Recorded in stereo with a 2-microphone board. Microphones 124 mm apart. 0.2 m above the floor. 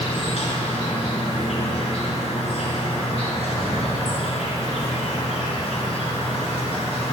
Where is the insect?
55° left (ahead or behind), 1.4 m.